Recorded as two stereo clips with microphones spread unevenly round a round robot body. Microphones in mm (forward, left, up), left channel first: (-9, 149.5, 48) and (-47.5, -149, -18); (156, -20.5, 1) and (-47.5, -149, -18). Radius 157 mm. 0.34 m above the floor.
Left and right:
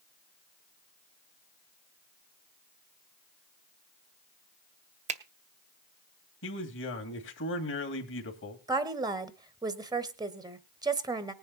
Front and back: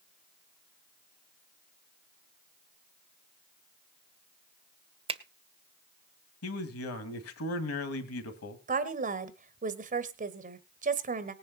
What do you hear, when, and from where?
5.1 s a finger snap: 110° right, 0.9 m
6.4 s a man speaking: 30° left, 2.5 m
8.7 s a woman speaking: 145° right, 1.1 m